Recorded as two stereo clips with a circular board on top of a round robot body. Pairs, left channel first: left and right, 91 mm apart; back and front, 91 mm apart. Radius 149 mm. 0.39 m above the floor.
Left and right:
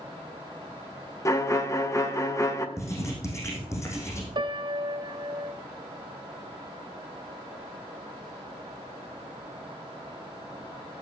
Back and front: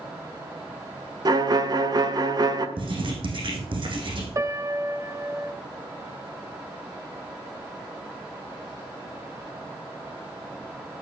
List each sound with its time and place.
1.2 s a violin: 35° left, 2.0 m
2.8 s writing: 30° left, 4 m
4.3 s a piano: 55° right, 1.5 m